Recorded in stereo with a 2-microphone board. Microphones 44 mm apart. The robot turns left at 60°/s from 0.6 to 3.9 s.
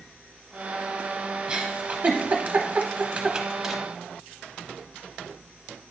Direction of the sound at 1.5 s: 20° right (ahead or behind).